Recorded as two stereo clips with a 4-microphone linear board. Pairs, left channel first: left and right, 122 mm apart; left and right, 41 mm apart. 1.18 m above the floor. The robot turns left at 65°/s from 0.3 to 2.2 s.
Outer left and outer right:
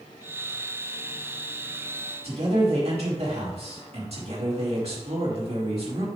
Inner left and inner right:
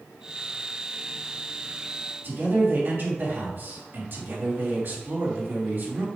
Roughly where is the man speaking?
Right.